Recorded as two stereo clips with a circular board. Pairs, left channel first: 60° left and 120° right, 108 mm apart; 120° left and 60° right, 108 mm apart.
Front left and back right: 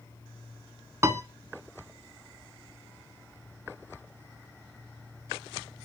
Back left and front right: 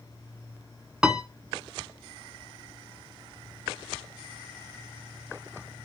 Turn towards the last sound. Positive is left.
turn(degrees=-135)